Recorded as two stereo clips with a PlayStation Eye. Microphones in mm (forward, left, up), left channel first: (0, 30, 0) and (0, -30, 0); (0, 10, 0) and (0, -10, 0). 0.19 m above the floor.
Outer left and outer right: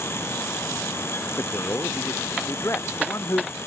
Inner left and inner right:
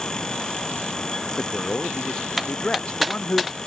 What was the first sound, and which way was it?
A man speaking, 45° left (ahead or behind).